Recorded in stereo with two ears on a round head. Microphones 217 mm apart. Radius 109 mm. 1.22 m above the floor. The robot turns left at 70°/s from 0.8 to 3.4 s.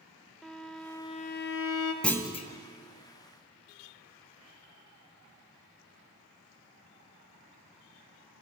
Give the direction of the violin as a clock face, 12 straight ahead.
6 o'clock.